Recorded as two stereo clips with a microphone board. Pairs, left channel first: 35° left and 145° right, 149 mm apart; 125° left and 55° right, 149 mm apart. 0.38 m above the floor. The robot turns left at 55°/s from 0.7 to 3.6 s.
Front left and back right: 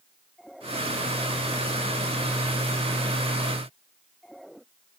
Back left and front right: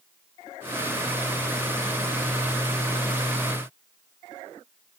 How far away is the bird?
I don't hear a bird.